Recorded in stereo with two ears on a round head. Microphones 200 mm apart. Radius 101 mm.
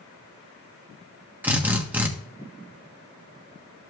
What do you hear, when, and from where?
1.4 s a drill: 10° right (ahead or behind), 1.4 m